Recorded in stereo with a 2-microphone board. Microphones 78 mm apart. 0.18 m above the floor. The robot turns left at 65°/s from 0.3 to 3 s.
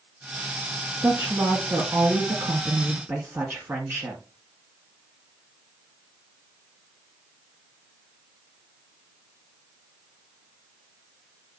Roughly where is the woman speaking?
Ahead.